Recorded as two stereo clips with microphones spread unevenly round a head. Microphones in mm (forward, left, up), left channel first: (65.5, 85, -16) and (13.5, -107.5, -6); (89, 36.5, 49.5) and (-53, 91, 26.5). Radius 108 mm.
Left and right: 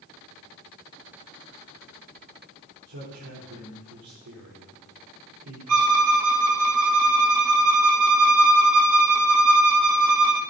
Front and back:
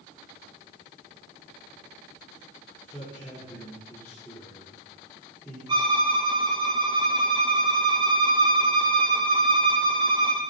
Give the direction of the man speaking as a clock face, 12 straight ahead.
3 o'clock.